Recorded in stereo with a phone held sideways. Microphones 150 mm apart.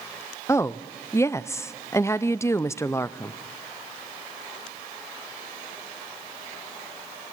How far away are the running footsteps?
No running footsteps in this recording.